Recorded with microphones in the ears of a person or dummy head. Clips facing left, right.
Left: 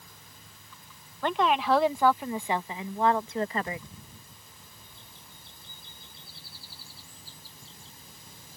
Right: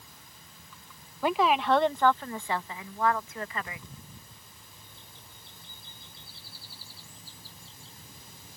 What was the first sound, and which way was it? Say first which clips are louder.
A woman speaking: right 1 dB; 5° right (ahead or behind).